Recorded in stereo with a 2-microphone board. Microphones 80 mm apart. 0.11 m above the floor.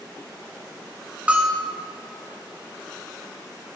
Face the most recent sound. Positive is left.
turn(degrees=-15)  # may be behind; listen again after turning